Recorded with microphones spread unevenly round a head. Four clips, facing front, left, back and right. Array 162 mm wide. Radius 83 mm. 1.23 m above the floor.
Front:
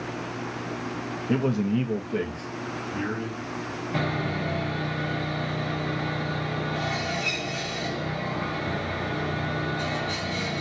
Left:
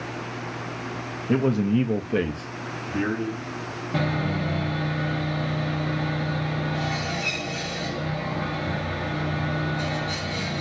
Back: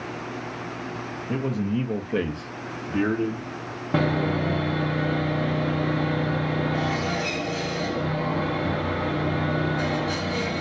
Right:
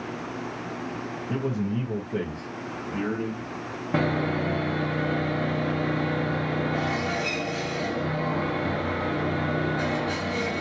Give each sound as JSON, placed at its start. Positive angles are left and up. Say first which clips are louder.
{"t": 1.3, "sound": "a man speaking", "louder": "left 7 dB, front 2 dB", "azimuth_deg": 70, "distance_m": 0.7}
{"t": 3.9, "sound": "sawing", "louder": "right 2 dB, back 6 dB", "azimuth_deg": -150, "distance_m": 0.9}